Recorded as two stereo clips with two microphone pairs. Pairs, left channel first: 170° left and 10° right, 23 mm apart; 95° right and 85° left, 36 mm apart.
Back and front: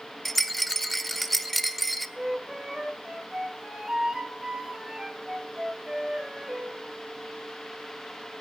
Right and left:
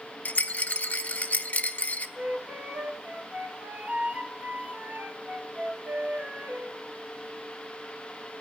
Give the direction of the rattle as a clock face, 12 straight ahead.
3 o'clock.